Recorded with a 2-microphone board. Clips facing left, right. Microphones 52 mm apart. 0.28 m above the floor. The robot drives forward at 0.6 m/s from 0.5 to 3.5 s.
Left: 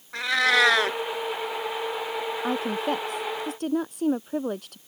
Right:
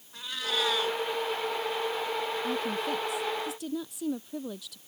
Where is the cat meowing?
85° left; by 1.0 s 75° left (ahead or behind).